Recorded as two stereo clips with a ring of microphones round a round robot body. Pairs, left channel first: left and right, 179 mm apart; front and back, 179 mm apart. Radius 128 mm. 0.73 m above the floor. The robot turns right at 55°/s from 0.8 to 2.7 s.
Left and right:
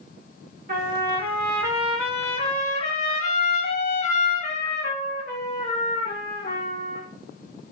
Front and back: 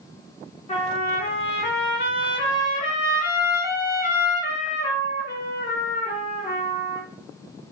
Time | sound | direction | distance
0.7 | a trumpet | 65° right | 1.3 m